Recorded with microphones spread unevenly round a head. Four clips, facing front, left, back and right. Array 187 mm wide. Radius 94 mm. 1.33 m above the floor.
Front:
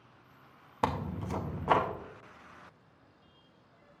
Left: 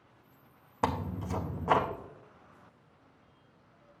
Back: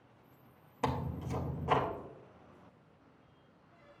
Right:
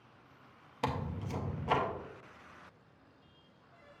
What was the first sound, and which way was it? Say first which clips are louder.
Tearing paper: left 4 dB, front 3 dB; 35° left.